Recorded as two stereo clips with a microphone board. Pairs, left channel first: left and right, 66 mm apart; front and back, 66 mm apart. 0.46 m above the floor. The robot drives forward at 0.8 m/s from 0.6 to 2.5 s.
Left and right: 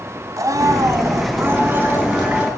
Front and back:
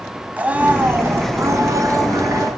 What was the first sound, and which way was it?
A blender, 115° right.